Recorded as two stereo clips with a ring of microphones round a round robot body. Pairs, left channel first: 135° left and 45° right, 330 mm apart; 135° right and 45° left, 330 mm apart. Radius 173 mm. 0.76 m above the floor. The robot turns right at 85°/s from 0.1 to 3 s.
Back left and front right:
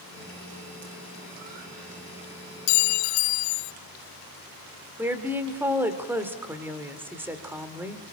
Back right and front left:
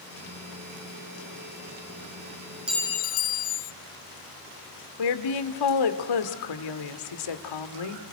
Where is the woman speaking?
130° right, 2 m.